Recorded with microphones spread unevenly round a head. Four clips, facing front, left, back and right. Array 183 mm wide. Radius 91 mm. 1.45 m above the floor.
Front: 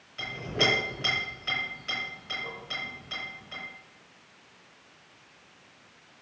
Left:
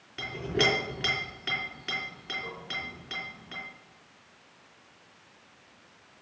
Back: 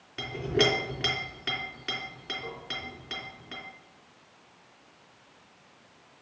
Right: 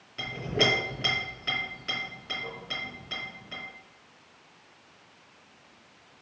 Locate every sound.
0.2 s a clink: 165° left, 3 m